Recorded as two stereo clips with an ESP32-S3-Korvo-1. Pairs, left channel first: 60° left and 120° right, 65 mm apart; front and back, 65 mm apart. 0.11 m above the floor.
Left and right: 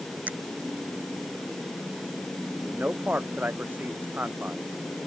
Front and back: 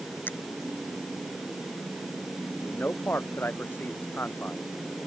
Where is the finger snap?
60° right.